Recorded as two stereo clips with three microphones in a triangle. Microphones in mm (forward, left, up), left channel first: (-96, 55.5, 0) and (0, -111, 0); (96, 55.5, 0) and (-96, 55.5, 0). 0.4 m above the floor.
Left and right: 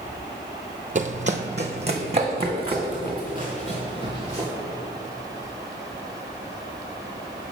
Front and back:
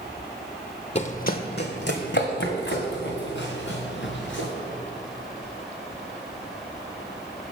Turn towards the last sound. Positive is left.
turn(degrees=5)